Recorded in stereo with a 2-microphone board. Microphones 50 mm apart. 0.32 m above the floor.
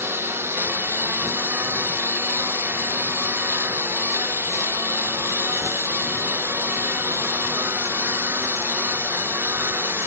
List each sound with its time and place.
0.0 s a lawn mower: 60° right (ahead or behind)